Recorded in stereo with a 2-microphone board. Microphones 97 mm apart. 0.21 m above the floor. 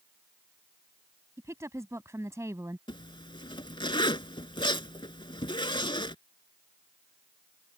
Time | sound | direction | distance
1.4 | a woman speaking | 30° right (ahead or behind) | ?
2.9 | a zipper | 55° left (ahead or behind) | ?